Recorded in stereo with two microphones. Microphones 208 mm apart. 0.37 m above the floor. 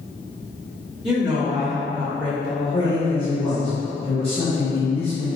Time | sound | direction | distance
1.0 | a woman speaking | centre (ahead or behind) | 1.1 m
2.7 | a man speaking | 30° left (ahead or behind) | 1.3 m